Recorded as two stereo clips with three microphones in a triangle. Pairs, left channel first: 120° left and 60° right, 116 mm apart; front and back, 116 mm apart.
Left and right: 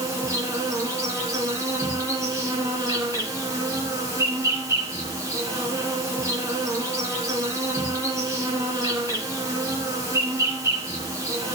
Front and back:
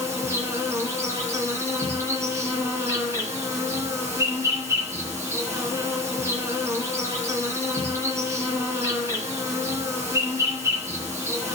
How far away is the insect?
About 3 m.